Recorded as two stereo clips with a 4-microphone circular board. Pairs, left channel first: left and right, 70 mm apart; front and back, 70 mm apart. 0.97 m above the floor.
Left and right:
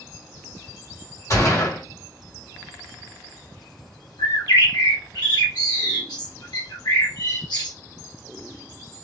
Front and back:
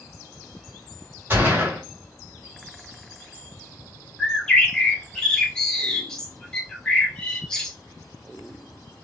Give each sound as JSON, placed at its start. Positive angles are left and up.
{"t": 1.3, "sound": "a gunshot", "azimuth_deg": 120, "distance_m": 2.0}
{"t": 4.2, "sound": "a bird", "azimuth_deg": 80, "distance_m": 1.0}